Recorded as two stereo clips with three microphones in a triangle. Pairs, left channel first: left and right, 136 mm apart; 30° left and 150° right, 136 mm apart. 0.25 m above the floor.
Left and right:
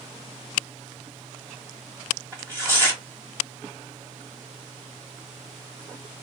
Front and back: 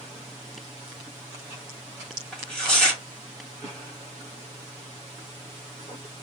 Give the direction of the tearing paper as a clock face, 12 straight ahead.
2 o'clock.